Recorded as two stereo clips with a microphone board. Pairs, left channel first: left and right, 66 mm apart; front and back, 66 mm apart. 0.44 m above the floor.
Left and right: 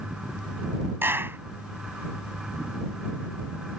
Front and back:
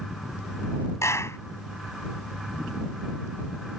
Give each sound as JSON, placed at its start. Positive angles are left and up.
{"t": 1.0, "sound": "a clap", "azimuth_deg": -40}